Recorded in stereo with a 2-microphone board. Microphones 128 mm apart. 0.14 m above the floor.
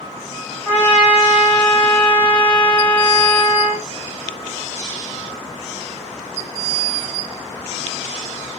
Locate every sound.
0.7 s a trumpet: 10° left (ahead or behind), 9.5 m